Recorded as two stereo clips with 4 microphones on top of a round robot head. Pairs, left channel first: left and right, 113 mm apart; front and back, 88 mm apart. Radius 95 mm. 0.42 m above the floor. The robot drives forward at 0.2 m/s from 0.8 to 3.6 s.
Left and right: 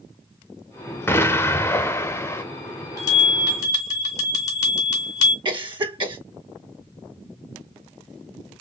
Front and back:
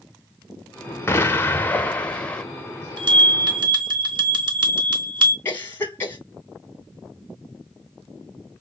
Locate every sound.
1.1 s an explosion: 35° left, 1.1 m; by 2.4 s 65° left, 1.0 m
3.0 s a bell: 150° left, 2.5 m
5.5 s a cough: 60° right, 1.8 m